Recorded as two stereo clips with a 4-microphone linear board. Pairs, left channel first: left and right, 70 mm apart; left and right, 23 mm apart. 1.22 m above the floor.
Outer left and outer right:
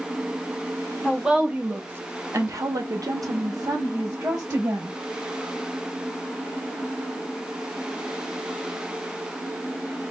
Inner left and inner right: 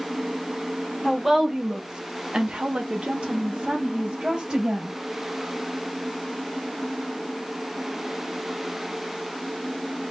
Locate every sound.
1.0 s a woman speaking: 5° right (ahead or behind), 0.9 m; by 5.0 s 55° right (ahead or behind), 1.8 m